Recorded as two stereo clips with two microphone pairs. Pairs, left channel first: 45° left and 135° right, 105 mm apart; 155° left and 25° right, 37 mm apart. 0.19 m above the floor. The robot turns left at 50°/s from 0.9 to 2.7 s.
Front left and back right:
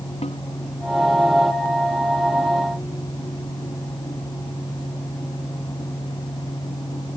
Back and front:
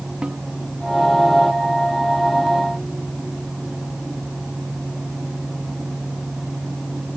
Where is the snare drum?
35° left.